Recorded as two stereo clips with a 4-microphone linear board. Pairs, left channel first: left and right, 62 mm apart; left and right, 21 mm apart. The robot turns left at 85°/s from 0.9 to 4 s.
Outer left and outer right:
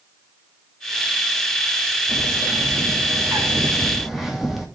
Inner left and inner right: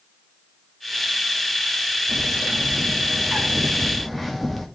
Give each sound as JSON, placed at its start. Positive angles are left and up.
{"t": 2.1, "sound": "a bird", "azimuth_deg": -15, "distance_m": 2.0}